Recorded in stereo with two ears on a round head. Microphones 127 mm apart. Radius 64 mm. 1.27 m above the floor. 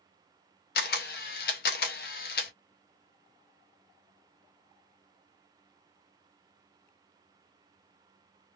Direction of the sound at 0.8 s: 70° left (ahead or behind).